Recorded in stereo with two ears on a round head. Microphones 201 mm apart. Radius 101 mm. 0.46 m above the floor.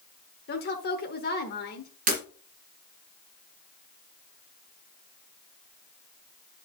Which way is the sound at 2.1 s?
35° right (ahead or behind).